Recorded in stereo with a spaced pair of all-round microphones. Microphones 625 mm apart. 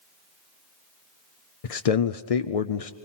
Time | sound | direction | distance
1.6 | a man speaking | 65° left (ahead or behind) | 0.8 m